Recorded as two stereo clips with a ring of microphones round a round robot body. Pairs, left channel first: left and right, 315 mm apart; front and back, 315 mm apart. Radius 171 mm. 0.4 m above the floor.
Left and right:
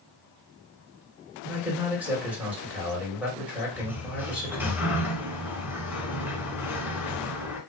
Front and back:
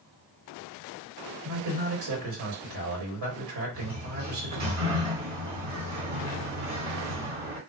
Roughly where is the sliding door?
Behind.